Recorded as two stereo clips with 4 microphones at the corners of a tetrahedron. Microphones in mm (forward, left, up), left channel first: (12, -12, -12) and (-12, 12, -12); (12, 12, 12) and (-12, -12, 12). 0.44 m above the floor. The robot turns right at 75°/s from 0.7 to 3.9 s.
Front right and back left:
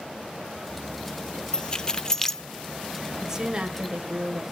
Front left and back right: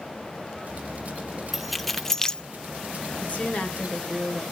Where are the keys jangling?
60° right, 0.5 m; by 2.4 s 10° left, 0.5 m.